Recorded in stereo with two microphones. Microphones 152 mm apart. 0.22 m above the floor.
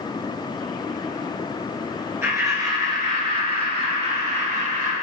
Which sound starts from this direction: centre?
Laughter, at 2.2 s.